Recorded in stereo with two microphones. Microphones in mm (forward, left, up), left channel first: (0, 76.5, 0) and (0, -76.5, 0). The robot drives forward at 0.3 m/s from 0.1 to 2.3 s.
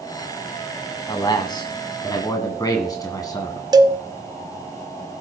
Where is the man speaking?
30° left (ahead or behind), 1.4 m; by 3.6 s 25° left (ahead or behind), 1.7 m.